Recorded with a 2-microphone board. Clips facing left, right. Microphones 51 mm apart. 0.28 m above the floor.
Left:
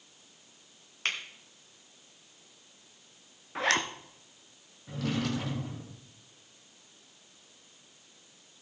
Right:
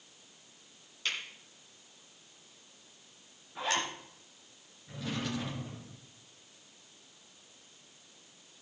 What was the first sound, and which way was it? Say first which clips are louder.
A finger snap: left 3 dB; 50° left (ahead or behind).